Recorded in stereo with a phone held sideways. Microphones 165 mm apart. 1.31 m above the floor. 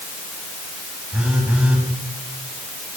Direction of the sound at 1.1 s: 10° right (ahead or behind).